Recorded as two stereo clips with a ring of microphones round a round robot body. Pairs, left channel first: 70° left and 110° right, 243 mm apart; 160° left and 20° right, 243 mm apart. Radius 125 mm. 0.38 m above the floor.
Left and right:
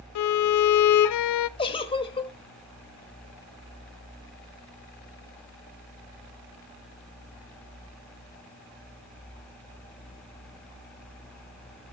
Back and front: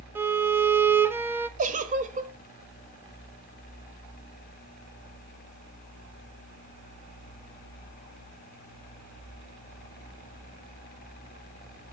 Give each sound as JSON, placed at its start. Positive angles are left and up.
{"t": 0.1, "sound": "a violin", "azimuth_deg": 60, "distance_m": 0.6}
{"t": 1.6, "sound": "a giggle", "azimuth_deg": 15, "distance_m": 1.4}